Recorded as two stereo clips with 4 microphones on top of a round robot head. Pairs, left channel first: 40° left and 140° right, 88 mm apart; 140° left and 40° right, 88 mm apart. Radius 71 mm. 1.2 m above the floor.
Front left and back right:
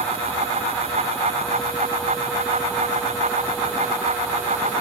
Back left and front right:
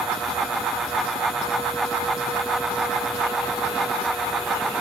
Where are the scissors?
I don't hear scissors.